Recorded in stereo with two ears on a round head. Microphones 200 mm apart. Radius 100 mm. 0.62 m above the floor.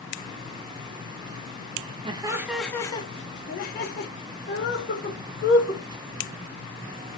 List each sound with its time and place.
2.0 s laughter: 25° right (ahead or behind), 0.7 m; by 5.8 s 60° left (ahead or behind), 2 m